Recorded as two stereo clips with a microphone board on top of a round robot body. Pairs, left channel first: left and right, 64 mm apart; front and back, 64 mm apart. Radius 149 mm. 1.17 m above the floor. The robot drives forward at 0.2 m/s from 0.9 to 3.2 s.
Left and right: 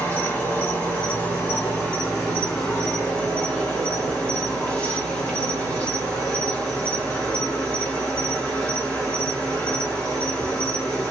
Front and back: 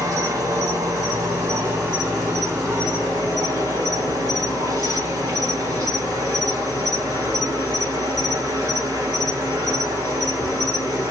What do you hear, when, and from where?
0.0 s an insect: 155° left, 0.9 m; by 11.1 s 165° left, 1.3 m